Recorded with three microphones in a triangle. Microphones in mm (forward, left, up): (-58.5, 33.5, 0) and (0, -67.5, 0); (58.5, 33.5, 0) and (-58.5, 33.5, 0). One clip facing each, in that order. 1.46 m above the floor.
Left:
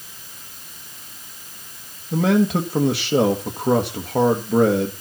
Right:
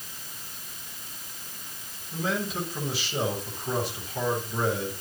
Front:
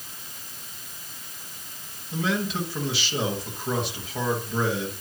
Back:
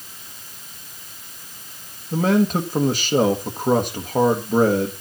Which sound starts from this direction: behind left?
A man speaking, at 2.1 s.